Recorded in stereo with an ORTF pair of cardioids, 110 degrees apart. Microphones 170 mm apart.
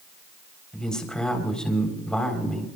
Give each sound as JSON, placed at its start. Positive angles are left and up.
{"t": 0.7, "sound": "a man speaking", "azimuth_deg": 5, "distance_m": 4.0}